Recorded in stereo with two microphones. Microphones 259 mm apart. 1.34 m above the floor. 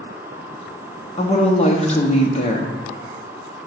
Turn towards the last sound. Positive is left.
turn(degrees=25)  # may be behind; listen again after turning